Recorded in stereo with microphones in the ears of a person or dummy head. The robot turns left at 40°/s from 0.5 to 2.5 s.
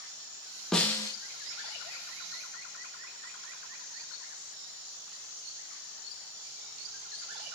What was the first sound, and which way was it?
A snare drum, centre (ahead or behind).